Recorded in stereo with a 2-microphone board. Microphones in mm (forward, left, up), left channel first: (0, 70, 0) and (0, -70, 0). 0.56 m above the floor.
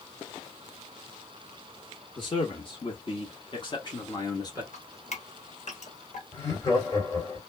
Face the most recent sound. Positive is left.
turn(degrees=30)  # may be behind; listen again after turning